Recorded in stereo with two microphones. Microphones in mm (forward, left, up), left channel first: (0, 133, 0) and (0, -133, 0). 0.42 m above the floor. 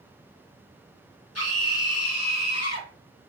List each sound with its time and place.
1.4 s a scream: 65° left (ahead or behind), 2 m; by 2.9 s 75° left (ahead or behind), 3 m